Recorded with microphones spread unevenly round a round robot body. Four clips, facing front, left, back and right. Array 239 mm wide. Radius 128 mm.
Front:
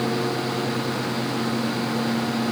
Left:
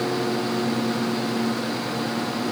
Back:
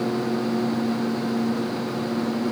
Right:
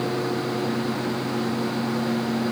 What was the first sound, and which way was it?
Only background noise.